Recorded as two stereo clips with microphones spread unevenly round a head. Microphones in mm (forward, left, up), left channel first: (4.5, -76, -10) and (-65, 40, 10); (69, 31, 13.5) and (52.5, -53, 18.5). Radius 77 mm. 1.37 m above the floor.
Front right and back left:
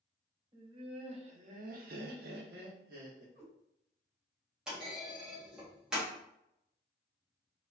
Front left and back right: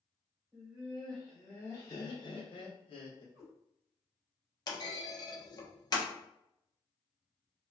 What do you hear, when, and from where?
0.5 s laughter: straight behind, 0.9 m; by 3.2 s 75° left, 0.9 m
3.4 s a cat meowing: 20° left, 1.2 m
4.7 s a clunk: 35° left, 0.7 m